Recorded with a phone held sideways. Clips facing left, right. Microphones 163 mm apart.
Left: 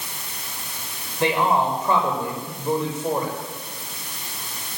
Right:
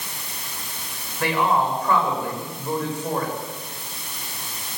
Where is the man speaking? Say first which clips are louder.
Left 1 dB; 25° left (ahead or behind), 7.5 m.